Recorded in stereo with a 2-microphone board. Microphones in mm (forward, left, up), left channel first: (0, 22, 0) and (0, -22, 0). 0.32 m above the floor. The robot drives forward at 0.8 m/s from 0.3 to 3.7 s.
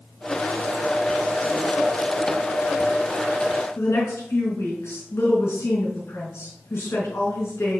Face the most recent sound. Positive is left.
turn(degrees=70)  # may be behind; listen again after turning